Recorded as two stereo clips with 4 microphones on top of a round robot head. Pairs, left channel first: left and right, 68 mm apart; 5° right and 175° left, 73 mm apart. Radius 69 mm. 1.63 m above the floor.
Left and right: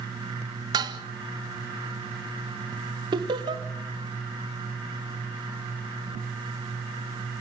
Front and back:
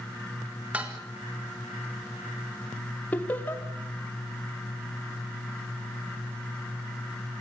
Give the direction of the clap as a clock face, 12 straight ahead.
I don't hear a clap.